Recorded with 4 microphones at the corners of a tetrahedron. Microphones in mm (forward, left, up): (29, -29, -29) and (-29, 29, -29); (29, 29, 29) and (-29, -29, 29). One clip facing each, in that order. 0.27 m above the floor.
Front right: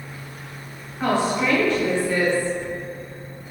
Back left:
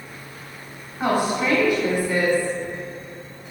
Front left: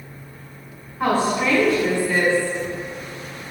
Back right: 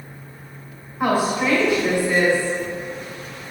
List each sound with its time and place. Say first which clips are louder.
1.0 s a woman speaking: even, even; 175° left, 0.9 m